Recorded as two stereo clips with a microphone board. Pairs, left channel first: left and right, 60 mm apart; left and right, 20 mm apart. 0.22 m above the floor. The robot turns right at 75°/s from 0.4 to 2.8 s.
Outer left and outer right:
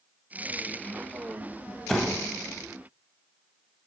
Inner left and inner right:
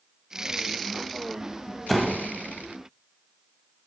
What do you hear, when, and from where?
1.9 s a door slam: 5° left (ahead or behind), 0.8 m; by 2.3 s 15° left (ahead or behind), 0.8 m